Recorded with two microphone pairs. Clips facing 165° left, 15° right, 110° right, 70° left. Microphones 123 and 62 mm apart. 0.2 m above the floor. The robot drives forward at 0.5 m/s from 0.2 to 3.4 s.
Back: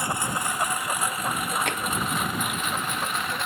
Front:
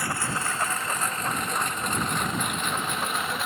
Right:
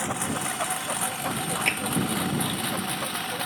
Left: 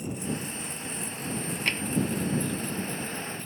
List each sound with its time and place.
0.0 s a lawn mower: 125° right; by 3.5 s 105° right
1.7 s tapping: 175° left